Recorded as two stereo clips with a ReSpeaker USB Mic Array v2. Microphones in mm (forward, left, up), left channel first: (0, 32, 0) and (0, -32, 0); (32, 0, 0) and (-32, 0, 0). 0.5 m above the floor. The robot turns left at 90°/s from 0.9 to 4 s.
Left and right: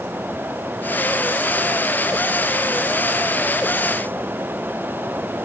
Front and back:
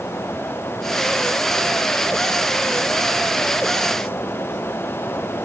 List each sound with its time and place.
Only background noise.